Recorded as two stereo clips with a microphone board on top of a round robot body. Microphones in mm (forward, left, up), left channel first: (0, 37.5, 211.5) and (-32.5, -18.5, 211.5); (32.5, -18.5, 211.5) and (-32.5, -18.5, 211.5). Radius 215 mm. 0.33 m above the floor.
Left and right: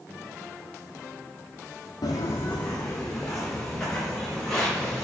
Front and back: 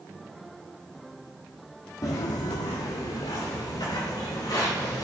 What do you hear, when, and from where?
2.0 s footsteps: 35° left, 0.7 m; by 5.0 s 25° right, 4.5 m